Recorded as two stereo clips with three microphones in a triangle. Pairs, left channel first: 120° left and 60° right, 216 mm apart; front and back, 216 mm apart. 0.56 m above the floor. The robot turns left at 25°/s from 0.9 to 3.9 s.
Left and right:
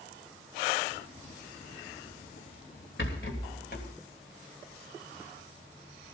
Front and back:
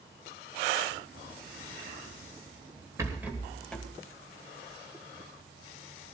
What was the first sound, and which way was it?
A rattle, 105° left.